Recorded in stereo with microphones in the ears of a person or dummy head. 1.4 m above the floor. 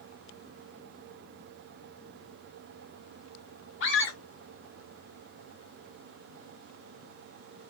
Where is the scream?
70° left (ahead or behind), 1.2 m.